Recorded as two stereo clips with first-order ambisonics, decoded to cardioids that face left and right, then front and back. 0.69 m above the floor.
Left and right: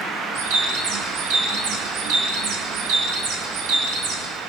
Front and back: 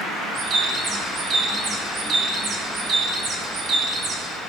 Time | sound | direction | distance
0.3 | a bird | 120° right | 1.2 m